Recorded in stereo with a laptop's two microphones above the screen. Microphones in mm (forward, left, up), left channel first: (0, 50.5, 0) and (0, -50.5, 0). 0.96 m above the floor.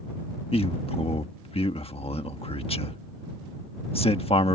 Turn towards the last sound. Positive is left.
turn(degrees=75)  # may be behind; listen again after turning